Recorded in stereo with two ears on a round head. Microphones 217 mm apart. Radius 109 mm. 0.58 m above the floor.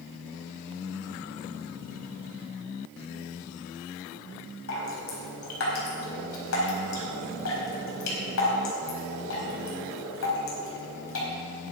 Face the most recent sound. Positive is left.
turn(degrees=60)  # may be behind; listen again after turning